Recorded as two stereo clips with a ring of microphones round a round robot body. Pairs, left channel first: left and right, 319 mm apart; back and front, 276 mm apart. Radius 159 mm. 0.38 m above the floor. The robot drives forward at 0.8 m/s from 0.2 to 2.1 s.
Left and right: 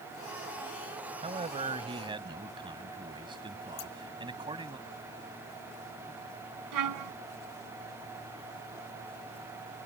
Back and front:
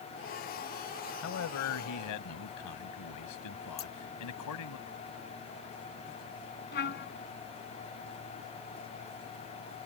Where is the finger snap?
No finger snap in this recording.